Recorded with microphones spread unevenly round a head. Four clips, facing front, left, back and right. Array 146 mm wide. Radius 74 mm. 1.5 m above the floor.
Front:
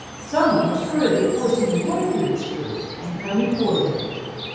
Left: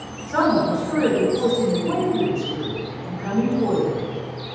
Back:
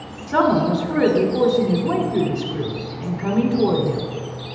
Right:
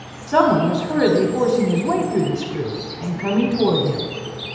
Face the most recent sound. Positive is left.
turn(degrees=-100)